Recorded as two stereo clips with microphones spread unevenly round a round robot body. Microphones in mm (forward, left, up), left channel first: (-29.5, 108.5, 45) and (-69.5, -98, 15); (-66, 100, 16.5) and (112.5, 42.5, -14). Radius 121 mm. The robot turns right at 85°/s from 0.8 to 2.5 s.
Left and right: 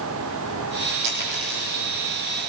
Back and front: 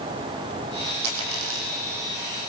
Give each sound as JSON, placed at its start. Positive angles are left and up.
{"t": 1.0, "sound": "a dropped coin", "azimuth_deg": -60, "distance_m": 4.5}